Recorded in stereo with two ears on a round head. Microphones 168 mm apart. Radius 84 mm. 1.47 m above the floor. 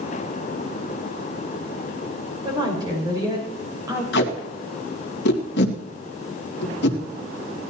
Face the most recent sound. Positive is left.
turn(degrees=65)  # may be behind; listen again after turning